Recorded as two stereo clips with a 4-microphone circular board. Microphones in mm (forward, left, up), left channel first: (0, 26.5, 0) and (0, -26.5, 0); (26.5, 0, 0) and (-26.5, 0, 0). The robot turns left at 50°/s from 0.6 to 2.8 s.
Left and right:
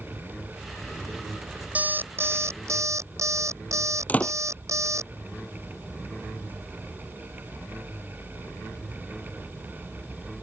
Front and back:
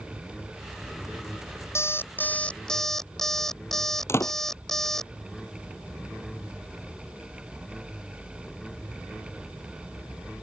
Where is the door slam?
30° left.